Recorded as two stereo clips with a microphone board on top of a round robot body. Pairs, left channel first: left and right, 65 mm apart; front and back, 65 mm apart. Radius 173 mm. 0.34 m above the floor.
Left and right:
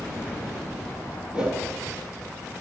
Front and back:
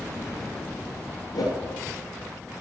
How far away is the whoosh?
About 3 m.